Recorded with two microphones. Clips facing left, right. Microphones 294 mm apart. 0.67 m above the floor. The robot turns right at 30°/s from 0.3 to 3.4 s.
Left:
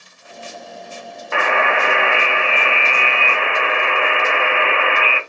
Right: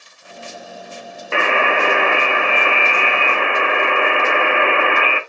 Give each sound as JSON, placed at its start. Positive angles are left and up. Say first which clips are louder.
{"t": 1.3, "sound": "a buzzer", "louder": "right 1 dB", "azimuth_deg": -140, "distance_m": 0.6}